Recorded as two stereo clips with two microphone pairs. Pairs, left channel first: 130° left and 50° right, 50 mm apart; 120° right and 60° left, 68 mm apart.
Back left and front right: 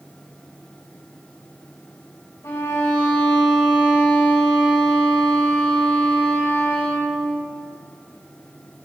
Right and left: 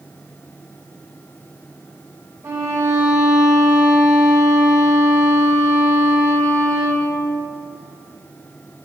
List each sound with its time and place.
2.4 s a violin: 115° left, 3.5 m